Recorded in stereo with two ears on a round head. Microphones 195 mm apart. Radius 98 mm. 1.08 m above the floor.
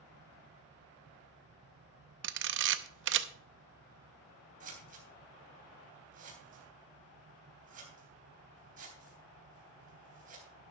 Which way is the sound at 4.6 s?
40° right (ahead or behind).